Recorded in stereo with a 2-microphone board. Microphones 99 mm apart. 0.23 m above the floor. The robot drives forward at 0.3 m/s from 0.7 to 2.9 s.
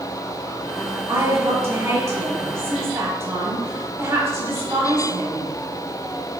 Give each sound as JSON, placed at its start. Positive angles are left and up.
{"t": 1.1, "sound": "a woman speaking", "side_deg": -25, "distance_m": 1.3}